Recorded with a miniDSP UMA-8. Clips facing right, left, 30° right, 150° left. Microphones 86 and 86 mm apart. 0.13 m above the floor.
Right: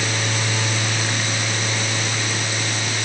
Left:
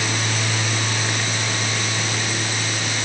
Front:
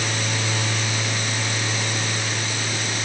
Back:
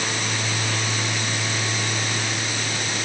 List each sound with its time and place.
Only background noise.